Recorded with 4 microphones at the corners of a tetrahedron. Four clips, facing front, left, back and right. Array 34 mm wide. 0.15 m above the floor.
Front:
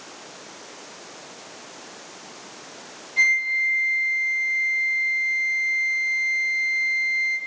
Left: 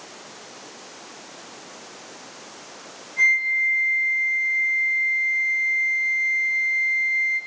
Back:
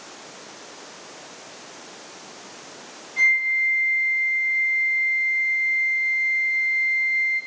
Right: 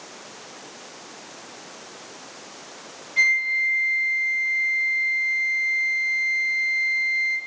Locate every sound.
3.2 s a flute: 60° right, 4.5 m